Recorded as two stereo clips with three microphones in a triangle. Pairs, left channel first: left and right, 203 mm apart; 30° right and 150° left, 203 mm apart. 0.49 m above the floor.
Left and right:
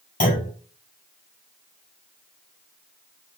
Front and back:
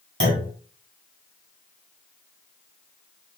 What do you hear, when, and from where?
0.2 s a clunk: 135° left, 3 m